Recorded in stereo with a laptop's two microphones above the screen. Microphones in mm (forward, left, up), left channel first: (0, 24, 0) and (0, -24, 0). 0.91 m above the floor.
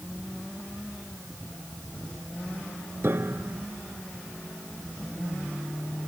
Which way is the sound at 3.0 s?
50° right (ahead or behind).